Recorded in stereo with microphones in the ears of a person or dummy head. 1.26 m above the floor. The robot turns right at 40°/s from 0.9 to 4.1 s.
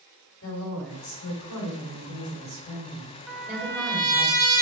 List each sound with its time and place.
0.4 s a woman speaking: 60° left, 3 m; by 4.3 s 170° right, 3 m
3.3 s a trumpet: straight ahead, 1.0 m; by 4.6 s 30° left, 1.0 m